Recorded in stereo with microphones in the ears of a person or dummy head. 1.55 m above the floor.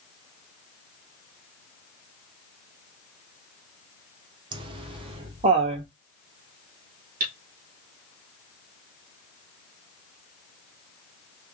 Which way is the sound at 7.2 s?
45° right (ahead or behind).